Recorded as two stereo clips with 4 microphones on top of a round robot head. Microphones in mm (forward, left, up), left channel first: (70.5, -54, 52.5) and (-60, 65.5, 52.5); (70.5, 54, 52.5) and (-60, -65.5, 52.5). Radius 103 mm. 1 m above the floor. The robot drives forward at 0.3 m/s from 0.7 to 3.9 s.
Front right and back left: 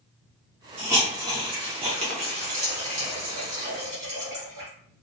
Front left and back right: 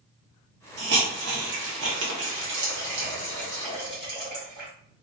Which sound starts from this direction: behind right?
A hiss, at 0.8 s.